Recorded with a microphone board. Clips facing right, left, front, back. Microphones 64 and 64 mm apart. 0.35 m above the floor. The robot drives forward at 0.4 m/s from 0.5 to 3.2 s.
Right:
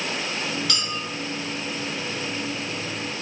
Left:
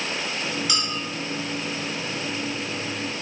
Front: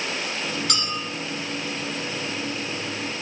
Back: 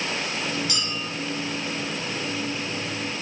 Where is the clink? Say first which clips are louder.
Left 1 dB, front 2 dB; 10° left, 2.5 m.